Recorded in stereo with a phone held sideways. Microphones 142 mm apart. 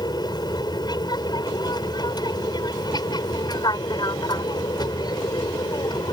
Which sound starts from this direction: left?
An aircraft, at 0.0 s.